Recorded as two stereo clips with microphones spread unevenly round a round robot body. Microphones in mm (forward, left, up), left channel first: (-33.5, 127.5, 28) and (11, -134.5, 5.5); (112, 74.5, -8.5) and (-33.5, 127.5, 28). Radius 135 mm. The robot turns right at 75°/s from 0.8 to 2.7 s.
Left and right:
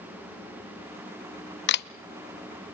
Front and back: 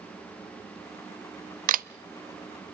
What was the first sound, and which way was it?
A camera shutter, 135° left.